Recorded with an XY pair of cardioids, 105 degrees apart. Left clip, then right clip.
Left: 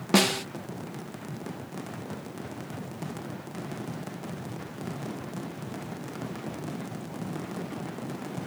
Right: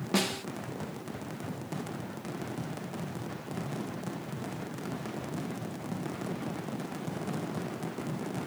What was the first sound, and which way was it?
A snare drum, 45° left.